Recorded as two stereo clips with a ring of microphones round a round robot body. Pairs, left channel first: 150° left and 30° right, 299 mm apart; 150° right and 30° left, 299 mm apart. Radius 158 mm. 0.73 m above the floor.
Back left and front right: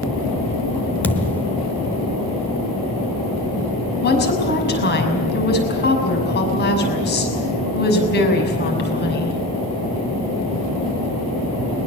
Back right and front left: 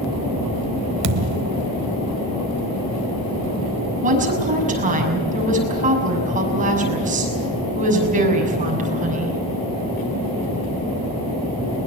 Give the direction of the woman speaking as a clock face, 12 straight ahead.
9 o'clock.